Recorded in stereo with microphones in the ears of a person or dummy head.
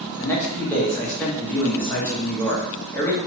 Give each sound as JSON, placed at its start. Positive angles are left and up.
{"t": 0.2, "sound": "a man speaking", "side_deg": 10, "distance_m": 0.8}